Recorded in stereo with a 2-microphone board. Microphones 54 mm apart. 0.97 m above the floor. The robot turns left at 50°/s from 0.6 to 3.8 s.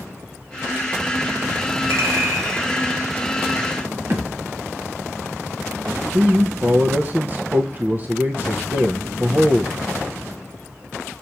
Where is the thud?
45° right (ahead or behind), 1.7 m.